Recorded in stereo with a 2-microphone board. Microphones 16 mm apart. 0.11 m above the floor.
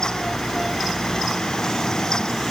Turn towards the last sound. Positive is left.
No sound to turn to.